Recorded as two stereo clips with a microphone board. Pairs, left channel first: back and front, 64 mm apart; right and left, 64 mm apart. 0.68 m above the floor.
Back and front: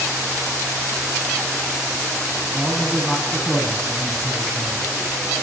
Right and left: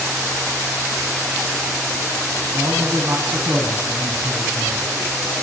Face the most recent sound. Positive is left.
turn(degrees=110)